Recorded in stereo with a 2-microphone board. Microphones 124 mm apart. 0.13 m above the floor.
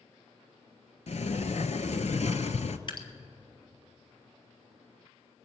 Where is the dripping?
40° left (ahead or behind), 1.1 m.